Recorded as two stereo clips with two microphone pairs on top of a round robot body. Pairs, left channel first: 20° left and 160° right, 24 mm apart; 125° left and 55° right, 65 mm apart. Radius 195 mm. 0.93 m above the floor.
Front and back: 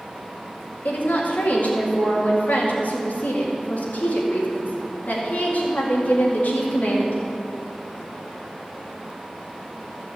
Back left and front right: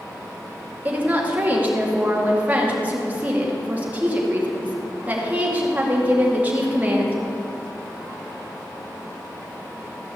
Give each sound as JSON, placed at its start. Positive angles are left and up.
{"t": 0.8, "sound": "a woman speaking", "azimuth_deg": 10, "distance_m": 2.5}